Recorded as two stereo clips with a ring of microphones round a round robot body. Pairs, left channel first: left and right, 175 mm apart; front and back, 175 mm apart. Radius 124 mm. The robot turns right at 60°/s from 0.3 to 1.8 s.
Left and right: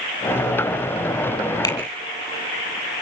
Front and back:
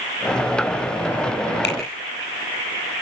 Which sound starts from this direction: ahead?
A finger snap, at 1.6 s.